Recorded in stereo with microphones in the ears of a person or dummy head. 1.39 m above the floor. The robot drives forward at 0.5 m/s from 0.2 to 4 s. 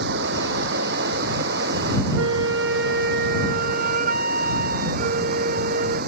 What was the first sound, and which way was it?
Running water, 60° right (ahead or behind).